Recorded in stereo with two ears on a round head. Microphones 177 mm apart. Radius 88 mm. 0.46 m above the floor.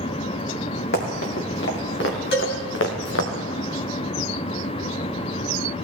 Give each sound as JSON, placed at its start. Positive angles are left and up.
{"t": 0.9, "sound": "running footsteps", "side_deg": 55, "distance_m": 3.5}
{"t": 2.3, "sound": "a cowbell", "side_deg": 55, "distance_m": 3.5}